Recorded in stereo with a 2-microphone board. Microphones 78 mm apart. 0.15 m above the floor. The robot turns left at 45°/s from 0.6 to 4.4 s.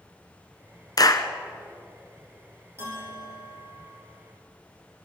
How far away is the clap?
About 1.2 m.